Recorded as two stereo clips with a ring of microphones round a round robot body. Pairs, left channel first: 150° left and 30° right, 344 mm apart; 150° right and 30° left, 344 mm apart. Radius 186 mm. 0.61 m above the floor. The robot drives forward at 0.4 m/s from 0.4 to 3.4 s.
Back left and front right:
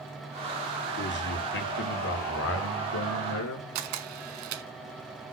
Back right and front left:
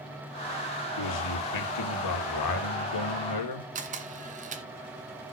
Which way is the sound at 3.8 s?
40° right.